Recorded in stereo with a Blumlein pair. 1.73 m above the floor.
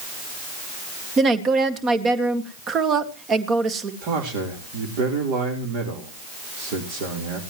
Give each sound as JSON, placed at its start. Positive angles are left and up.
{"t": 1.2, "sound": "a woman speaking", "azimuth_deg": -25, "distance_m": 2.0}
{"t": 4.0, "sound": "a man speaking", "azimuth_deg": -45, "distance_m": 4.0}